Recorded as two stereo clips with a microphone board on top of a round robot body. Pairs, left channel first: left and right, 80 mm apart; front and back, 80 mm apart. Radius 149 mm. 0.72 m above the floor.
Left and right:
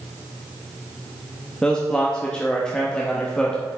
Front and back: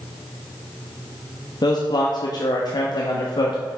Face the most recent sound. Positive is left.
turn(degrees=10)